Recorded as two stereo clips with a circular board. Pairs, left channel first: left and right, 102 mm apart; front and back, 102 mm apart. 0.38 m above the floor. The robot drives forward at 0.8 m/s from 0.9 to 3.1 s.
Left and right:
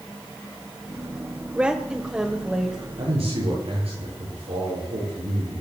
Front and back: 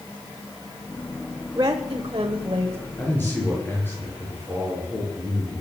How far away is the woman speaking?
About 1.0 m.